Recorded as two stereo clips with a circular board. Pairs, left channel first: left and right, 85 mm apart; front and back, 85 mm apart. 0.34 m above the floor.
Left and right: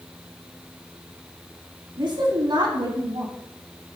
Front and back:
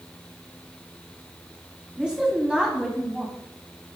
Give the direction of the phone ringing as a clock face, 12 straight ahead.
I don't hear a phone ringing.